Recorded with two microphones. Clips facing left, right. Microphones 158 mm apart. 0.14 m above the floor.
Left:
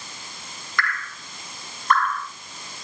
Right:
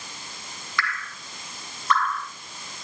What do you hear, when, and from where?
0.8 s dripping: 50° left (ahead or behind), 2 m